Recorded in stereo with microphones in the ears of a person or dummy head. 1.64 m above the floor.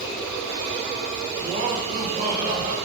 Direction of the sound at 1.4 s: 45° right (ahead or behind).